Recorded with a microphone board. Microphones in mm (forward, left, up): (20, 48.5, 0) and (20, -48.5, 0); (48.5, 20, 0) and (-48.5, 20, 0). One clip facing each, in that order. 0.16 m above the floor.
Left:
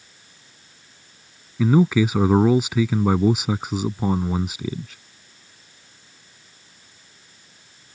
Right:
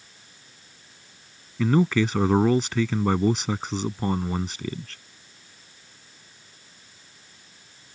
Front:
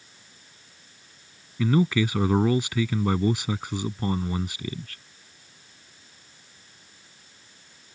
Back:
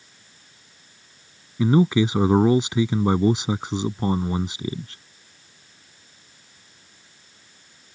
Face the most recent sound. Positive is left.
turn(degrees=160)